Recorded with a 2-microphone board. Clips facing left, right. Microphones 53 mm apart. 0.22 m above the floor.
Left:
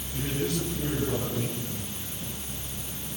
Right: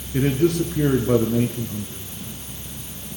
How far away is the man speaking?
About 3 m.